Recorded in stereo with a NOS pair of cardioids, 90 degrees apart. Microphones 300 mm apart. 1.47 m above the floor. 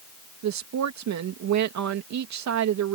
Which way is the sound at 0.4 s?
65° right.